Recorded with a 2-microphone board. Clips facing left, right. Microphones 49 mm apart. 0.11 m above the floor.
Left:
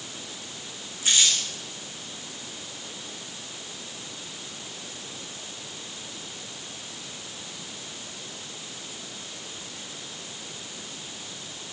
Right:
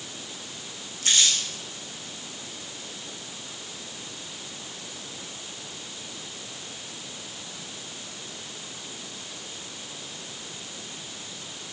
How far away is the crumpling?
About 7 m.